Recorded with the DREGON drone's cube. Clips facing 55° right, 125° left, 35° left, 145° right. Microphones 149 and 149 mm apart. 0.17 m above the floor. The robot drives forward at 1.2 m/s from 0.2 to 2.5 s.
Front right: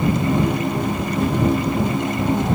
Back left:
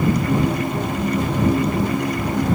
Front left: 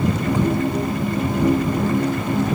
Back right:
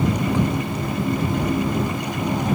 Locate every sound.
Only background noise.